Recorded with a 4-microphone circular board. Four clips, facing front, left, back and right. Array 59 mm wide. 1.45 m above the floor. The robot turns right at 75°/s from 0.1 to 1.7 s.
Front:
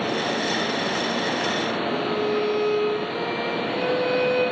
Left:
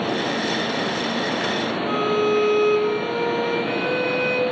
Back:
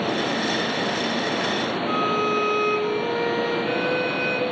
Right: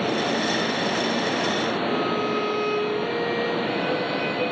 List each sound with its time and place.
1.9 s a violin: 140° left, 3.5 m